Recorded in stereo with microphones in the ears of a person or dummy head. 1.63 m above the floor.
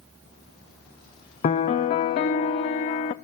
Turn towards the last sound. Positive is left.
turn(degrees=25)  # may be behind; listen again after turning